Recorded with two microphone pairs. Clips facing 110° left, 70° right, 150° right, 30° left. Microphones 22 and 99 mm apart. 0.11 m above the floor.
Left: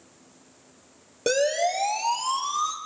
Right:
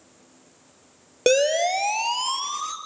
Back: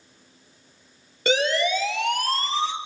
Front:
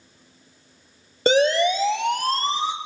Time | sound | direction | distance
1.3 | a siren | 20° right | 3 m